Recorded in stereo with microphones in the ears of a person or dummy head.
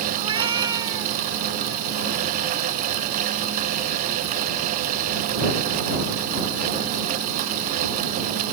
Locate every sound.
0.2 s a cat meowing: 35° right (ahead or behind); by 1.2 s 20° right (ahead or behind)